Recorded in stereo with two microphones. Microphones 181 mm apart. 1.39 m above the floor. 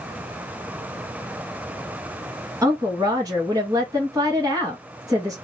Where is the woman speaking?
20° right (ahead or behind), 1.5 m.